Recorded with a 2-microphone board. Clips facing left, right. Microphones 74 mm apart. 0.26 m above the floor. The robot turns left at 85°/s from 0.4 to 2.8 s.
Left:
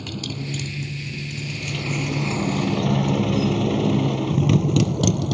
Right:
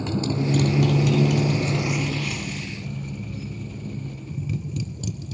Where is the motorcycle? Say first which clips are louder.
Right 7 dB; 25° right (ahead or behind); by 5.3 s 75° left (ahead or behind).